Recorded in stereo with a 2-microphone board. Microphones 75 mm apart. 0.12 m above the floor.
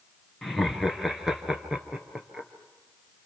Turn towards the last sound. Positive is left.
turn(degrees=-10)  # may be behind; listen again after turning